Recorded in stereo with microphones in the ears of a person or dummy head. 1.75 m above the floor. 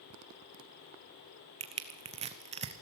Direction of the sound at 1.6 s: 25° right (ahead or behind).